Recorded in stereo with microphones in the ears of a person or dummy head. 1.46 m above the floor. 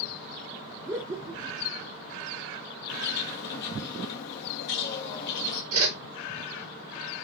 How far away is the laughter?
About 0.6 m.